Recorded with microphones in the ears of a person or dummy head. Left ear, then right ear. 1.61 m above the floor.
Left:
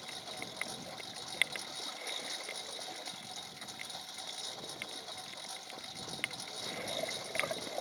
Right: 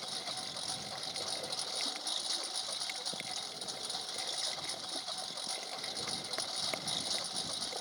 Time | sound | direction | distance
0.0 | a lawn mower | 30° right (ahead or behind) | ?